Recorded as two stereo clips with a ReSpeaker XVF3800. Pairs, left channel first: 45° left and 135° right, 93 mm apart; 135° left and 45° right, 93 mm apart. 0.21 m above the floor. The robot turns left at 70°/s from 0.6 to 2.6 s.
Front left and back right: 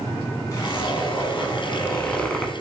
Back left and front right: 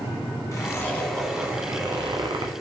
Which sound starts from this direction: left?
A zipper, at 0.5 s.